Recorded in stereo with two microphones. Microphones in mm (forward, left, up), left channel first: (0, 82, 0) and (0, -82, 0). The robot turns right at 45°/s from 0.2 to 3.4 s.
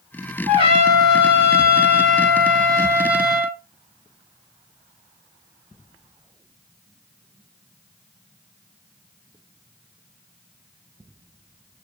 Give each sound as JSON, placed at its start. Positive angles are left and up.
{"t": 0.5, "sound": "a trumpet", "azimuth_deg": -150, "distance_m": 2.5}